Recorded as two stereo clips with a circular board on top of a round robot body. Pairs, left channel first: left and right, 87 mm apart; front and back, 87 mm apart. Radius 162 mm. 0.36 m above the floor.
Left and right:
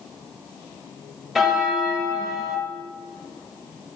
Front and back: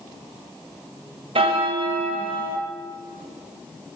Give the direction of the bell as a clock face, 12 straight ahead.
6 o'clock.